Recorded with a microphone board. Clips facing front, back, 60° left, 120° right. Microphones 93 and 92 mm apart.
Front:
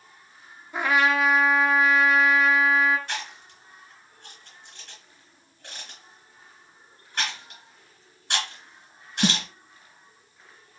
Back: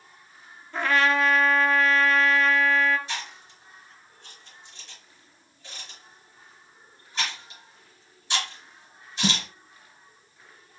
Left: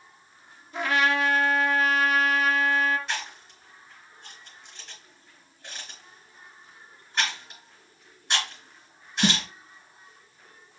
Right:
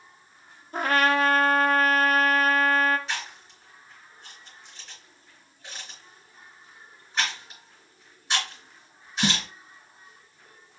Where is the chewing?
30° right, 3 m.